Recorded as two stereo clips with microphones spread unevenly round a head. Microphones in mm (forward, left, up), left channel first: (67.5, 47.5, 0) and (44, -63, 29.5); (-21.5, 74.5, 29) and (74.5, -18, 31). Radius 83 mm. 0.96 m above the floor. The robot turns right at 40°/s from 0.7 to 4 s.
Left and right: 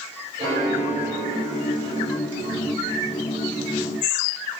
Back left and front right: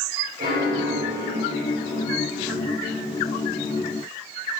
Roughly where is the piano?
Right.